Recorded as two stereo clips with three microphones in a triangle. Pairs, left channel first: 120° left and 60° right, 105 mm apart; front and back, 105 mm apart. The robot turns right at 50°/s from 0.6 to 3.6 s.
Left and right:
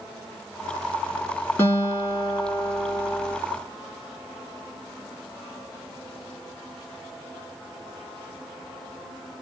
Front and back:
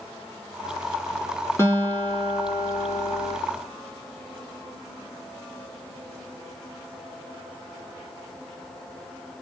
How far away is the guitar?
About 1.9 m.